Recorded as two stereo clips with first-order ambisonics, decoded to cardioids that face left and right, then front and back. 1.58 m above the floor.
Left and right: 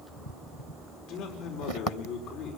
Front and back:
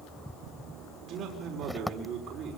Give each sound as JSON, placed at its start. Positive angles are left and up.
{"t": 1.1, "sound": "a man speaking", "azimuth_deg": 130, "distance_m": 5.5}